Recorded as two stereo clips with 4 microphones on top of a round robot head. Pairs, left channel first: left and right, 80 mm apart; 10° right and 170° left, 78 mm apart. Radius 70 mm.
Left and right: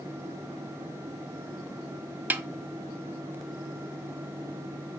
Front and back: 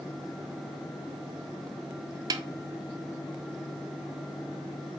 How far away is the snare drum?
About 0.5 m.